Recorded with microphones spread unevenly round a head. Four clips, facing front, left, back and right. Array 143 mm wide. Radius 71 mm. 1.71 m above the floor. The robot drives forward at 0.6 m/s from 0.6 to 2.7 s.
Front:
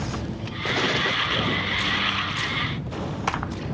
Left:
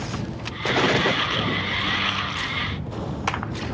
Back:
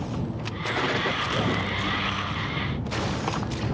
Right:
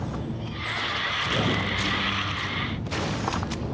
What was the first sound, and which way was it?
An explosion, 65° left.